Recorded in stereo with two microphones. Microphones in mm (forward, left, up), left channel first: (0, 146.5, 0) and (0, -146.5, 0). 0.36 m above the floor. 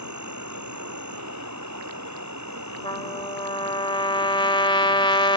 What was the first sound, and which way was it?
An insect, 75° right (ahead or behind).